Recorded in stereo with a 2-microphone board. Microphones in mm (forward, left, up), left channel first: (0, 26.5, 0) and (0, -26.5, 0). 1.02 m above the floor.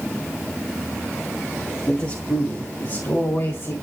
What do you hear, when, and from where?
1.9 s a man speaking: 55° left (ahead or behind), 2 m; by 3.8 s 70° left (ahead or behind), 4 m